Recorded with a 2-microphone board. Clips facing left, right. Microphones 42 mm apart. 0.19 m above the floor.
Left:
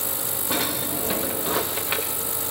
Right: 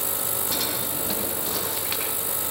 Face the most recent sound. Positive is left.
turn(degrees=25)  # may be behind; listen again after turning